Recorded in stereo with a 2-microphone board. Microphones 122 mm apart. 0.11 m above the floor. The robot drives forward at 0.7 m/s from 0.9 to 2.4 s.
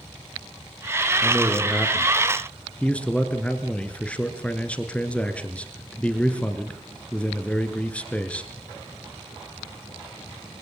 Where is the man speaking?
10° left (ahead or behind), 2.5 m.